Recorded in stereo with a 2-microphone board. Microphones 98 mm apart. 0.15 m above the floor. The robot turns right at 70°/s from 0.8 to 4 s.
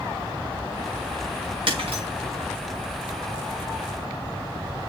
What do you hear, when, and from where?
1.7 s breaking glass: 60° right (ahead or behind), 4.5 m; by 2.0 s 85° right, 4.5 m